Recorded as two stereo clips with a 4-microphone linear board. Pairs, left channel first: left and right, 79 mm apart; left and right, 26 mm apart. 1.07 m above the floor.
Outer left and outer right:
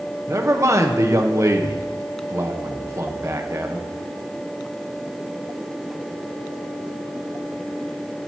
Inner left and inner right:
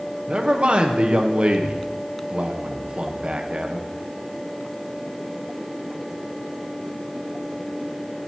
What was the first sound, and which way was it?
A man speaking, 40° right (ahead or behind).